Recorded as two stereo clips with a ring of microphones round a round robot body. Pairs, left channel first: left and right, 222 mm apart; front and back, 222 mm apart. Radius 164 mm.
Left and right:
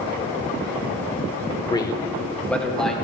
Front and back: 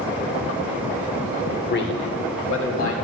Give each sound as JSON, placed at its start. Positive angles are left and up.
{"t": 1.6, "sound": "a man speaking", "azimuth_deg": 30, "distance_m": 1.0}